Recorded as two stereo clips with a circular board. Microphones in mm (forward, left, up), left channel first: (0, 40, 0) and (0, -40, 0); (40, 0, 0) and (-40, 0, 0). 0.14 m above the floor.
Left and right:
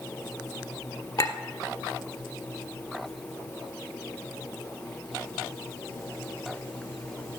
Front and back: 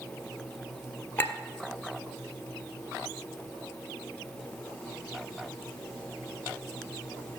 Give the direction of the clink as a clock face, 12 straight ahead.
10 o'clock.